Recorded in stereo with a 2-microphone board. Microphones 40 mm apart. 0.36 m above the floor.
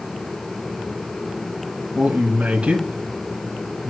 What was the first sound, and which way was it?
A man speaking, 30° right (ahead or behind).